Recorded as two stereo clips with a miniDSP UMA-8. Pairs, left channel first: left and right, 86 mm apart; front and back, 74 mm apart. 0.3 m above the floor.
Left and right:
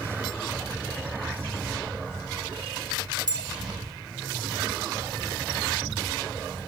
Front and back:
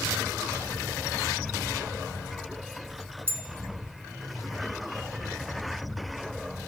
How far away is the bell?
About 2.5 m.